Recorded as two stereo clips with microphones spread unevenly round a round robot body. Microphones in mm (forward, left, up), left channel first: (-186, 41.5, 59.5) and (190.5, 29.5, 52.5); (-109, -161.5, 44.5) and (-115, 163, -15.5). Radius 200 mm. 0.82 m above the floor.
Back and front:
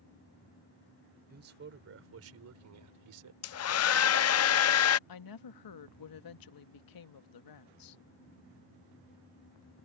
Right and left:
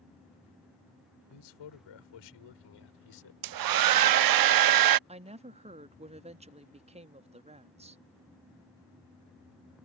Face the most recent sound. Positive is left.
turn(degrees=155)